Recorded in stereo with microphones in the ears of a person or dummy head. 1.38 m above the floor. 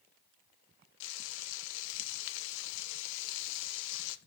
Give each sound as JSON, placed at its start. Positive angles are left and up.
{"t": 1.0, "sound": "frying", "side_deg": 65, "distance_m": 0.8}